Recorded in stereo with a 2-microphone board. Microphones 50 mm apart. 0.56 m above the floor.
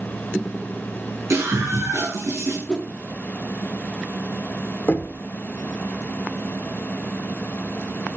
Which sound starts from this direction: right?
A scream, at 1.3 s.